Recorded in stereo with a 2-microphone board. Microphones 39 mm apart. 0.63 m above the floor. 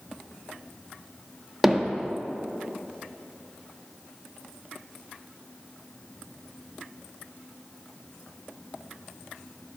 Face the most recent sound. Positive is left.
turn(degrees=-5)  # may be behind; listen again after turning